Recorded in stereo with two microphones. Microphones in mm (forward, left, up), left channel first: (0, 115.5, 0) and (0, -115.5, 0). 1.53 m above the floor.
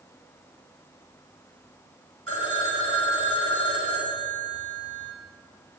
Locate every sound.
2.3 s a phone ringing: 70° right (ahead or behind), 6 m